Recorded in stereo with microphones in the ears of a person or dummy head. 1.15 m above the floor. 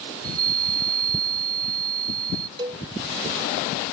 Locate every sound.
0.1 s a chime: 55° right (ahead or behind)
2.6 s a cowbell: 30° right (ahead or behind)